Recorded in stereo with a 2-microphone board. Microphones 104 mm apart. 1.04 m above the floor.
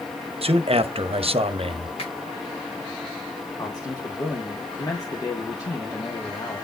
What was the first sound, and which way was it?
A man speaking, 70° right (ahead or behind).